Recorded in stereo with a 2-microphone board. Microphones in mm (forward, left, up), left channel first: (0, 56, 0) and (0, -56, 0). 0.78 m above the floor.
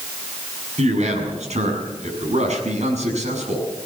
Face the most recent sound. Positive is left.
turn(degrees=-85)